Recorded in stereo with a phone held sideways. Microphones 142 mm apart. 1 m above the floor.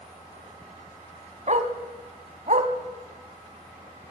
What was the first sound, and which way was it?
A dog barking, 55° right (ahead or behind).